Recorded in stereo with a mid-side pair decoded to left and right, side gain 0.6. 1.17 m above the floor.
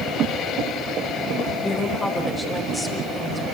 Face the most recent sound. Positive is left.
turn(degrees=5)